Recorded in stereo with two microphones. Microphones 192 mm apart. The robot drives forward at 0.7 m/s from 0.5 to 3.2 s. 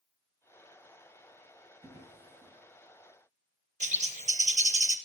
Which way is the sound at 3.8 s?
40° right (ahead or behind).